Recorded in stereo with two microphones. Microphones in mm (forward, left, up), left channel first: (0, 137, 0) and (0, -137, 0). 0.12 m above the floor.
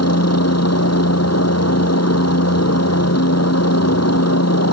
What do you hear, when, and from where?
0.0 s a helicopter: 65° left (ahead or behind)